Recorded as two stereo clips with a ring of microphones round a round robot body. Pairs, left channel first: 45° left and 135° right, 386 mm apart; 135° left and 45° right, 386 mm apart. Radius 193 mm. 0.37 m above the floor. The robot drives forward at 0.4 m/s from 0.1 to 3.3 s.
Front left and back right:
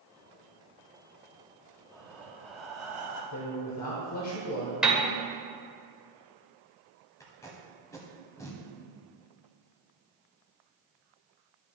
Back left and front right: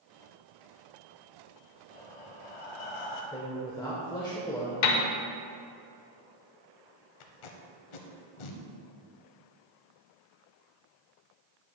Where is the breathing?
125° left, 1.4 m; by 3.2 s 140° left, 1.8 m.